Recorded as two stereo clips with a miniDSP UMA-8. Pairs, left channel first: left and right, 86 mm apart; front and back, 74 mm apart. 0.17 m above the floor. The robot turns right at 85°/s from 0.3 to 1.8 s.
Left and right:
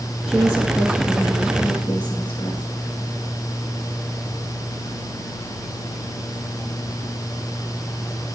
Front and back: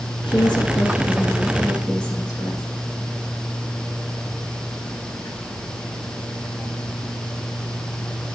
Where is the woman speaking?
5° right, 5 m; by 2.6 s 125° left, 5 m.